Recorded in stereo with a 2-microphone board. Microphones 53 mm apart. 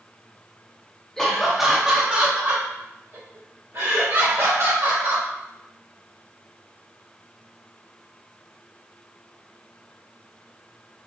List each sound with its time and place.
1.2 s laughter: 10° left (ahead or behind), 1.0 m; by 5.3 s 65° right (ahead or behind), 2 m